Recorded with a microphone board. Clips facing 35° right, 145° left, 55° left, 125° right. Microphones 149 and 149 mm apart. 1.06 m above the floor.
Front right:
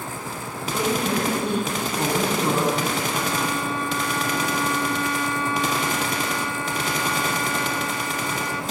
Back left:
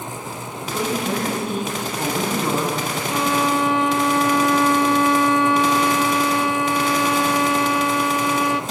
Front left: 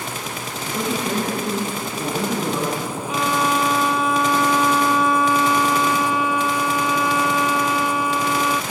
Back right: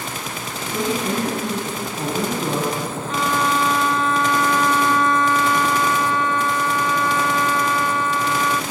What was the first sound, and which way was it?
A woman speaking, 135° right.